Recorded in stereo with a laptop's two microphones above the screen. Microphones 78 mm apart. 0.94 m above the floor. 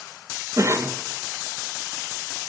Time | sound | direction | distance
0.6 | a cough | 40° right (ahead or behind) | 1.0 m